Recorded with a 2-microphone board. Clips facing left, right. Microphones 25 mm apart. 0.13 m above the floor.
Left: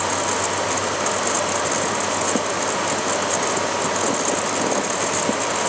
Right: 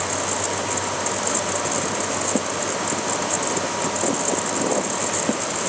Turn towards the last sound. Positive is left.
No sound to turn to.